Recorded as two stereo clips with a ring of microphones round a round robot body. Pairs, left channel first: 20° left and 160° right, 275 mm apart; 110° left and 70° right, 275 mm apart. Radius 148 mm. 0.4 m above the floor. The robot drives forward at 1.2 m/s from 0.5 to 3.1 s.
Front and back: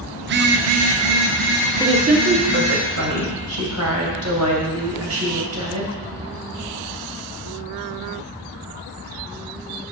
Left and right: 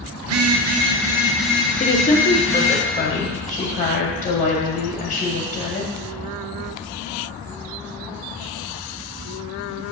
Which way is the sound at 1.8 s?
135° left.